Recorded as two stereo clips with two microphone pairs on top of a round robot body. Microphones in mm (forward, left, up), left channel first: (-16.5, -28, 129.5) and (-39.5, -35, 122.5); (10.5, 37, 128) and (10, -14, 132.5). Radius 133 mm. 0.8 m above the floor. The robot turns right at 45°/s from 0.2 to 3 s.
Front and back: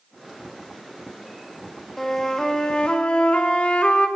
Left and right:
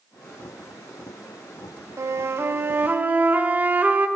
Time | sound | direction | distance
2.0 | a flute | 80° right | 0.6 m